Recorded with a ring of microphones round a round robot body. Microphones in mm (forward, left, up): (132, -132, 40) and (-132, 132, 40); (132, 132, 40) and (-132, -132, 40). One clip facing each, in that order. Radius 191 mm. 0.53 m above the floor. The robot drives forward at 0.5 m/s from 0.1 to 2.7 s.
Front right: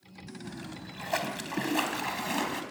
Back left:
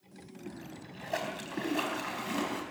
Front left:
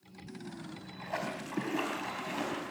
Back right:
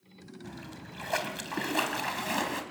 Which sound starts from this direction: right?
A splash, at 0.4 s.